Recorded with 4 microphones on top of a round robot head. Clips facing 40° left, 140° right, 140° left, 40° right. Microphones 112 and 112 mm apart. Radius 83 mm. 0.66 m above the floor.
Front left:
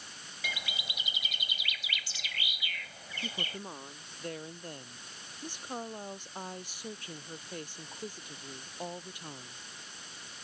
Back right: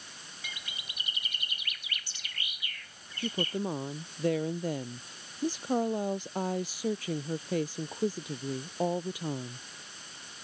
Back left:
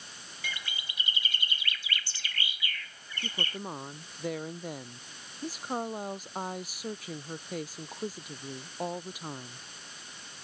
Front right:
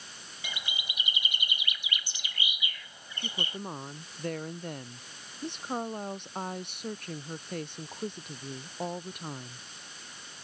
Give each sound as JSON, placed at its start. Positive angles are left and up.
{"t": 0.4, "sound": "a bird", "azimuth_deg": 35}
{"t": 3.2, "sound": "a woman speaking", "azimuth_deg": -135}